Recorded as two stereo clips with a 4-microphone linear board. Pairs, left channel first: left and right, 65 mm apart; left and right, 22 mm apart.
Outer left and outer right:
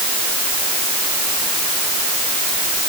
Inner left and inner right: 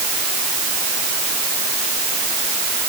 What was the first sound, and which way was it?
Only background noise.